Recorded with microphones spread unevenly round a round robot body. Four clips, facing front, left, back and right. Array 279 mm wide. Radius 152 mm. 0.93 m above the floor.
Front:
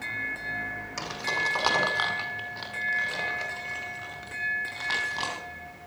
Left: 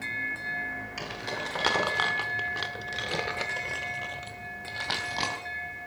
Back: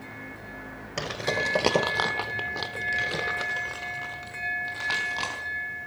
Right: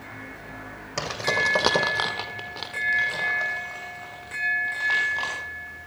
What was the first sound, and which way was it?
Keys jangling, 130° right.